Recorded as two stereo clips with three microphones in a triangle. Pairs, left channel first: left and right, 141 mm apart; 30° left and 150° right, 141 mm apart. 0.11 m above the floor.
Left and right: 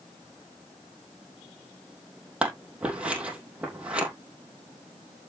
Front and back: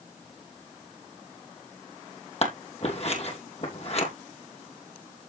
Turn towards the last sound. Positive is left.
turn(degrees=-10)